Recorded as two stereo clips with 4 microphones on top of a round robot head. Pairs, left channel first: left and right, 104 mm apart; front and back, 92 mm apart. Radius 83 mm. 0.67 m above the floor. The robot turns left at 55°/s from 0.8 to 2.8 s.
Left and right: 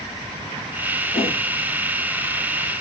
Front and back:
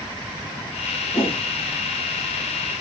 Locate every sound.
1.1 s a whoosh: 35° left, 3 m; by 1.4 s 20° left, 3 m